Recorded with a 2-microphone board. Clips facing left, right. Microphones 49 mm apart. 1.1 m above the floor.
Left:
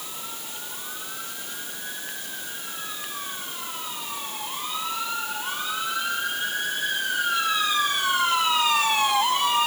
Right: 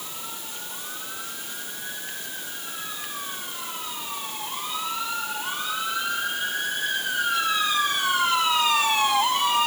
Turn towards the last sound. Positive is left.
No sound to turn to.